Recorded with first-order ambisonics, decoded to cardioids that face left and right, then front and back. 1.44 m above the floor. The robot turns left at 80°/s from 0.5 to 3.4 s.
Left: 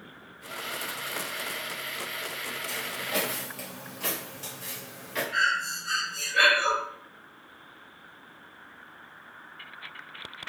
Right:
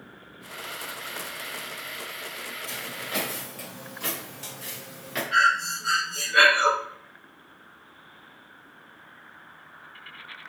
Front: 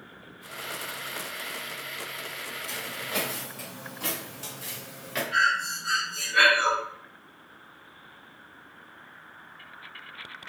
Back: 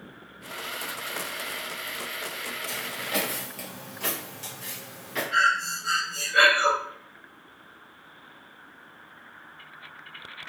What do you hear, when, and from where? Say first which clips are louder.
2.7 s footsteps: left 1 dB, back 2 dB; 140° right, 1.8 m; by 5.2 s 45° right, 1.6 m
5.3 s breathing: right 5 dB, back 1 dB; 100° right, 0.8 m